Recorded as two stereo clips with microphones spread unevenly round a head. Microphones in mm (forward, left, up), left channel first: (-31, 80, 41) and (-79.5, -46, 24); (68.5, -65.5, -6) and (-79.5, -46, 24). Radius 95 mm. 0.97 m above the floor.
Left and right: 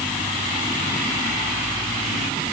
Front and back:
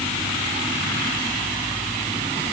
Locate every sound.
Only background noise.